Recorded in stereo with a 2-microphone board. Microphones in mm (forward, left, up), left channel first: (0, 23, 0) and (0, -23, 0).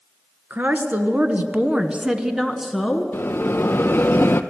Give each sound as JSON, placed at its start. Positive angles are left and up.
{"t": 0.5, "sound": "a woman speaking", "side_deg": -45, "distance_m": 1.5}
{"t": 3.1, "sound": "a bell", "side_deg": 45, "distance_m": 0.7}